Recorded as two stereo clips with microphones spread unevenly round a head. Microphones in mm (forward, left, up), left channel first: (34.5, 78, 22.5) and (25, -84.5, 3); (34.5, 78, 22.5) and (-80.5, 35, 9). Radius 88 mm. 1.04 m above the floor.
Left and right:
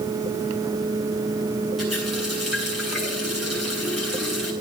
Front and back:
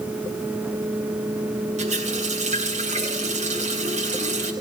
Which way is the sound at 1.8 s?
Straight behind.